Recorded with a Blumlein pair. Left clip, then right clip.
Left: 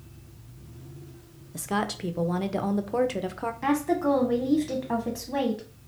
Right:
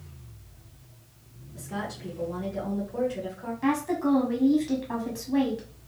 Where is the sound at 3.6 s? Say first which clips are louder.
Left 1 dB; 15° left, 0.7 m.